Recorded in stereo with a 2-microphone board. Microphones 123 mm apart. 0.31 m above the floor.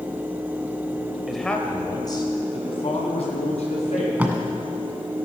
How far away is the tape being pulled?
About 1.5 m.